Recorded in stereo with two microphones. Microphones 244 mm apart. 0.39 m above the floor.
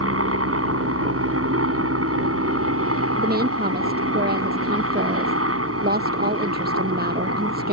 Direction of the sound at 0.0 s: 60° right (ahead or behind).